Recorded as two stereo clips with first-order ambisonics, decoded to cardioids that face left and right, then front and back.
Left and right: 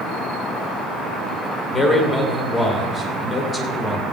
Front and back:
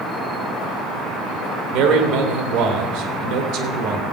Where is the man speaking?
160° left, 2 m.